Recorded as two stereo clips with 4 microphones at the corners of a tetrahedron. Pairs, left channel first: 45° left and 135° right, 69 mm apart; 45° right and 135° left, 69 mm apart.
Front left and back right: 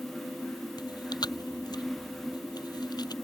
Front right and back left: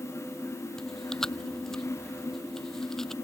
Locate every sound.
0.8 s chewing: 35° left